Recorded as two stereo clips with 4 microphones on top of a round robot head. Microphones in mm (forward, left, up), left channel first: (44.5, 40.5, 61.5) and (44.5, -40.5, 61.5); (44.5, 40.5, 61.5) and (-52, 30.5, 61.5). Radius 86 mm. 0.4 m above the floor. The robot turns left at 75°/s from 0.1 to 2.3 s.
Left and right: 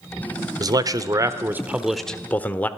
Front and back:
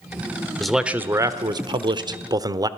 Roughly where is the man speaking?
Right.